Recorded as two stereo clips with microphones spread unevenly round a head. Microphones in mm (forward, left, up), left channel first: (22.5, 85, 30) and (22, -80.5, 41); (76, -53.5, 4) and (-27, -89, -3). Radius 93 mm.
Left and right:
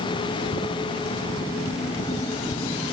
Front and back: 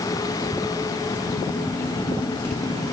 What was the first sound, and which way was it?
Only background noise.